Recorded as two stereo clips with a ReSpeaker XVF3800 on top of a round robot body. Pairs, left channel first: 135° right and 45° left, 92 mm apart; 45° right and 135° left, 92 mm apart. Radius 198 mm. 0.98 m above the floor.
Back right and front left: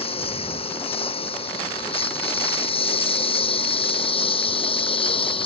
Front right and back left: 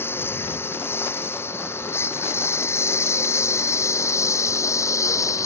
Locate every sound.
0.0 s a lawn mower: 115° right; by 5.5 s 105° right